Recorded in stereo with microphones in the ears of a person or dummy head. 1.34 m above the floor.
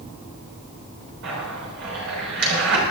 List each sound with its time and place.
1.2 s a zipper: 65° right (ahead or behind), 6 m